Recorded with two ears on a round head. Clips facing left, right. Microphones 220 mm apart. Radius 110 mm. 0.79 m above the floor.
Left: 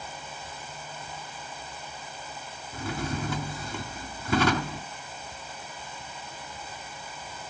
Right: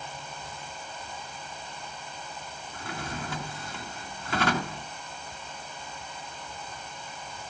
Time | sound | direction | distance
2.7 | a drawer | 85° left | 3.5 m